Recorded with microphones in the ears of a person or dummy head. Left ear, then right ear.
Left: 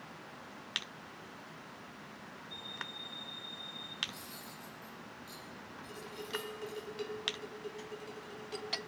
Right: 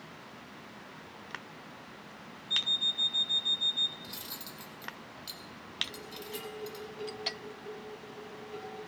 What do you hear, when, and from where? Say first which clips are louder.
2.5 s an alarm clock: right 16 dB; 25° right (ahead or behind), 0.7 m
4.0 s cutlery clinking: right 3 dB; 40° right (ahead or behind), 2 m
5.9 s dishes clattering: left 1 dB; 50° left (ahead or behind), 4 m